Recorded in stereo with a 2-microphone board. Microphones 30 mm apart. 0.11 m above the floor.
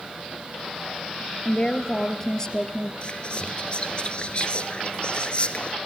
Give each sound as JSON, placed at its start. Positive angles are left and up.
{"t": 1.4, "sound": "a woman speaking", "side_deg": 25, "distance_m": 2.5}
{"t": 3.0, "sound": "whispering", "side_deg": 40, "distance_m": 1.4}